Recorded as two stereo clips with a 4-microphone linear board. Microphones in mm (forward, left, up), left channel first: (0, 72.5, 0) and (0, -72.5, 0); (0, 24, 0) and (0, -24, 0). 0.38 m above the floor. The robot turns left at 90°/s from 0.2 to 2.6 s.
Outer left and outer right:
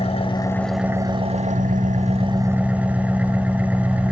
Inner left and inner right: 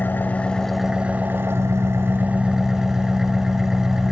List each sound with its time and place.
0.0 s an engine running: 50° left, 1.2 m; by 4.1 s 170° right, 1.2 m